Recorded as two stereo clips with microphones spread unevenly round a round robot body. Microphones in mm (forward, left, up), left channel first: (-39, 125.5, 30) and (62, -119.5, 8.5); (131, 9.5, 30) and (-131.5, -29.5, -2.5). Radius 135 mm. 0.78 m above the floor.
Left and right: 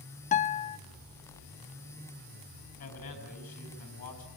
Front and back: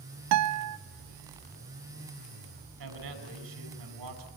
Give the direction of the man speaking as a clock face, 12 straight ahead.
6 o'clock.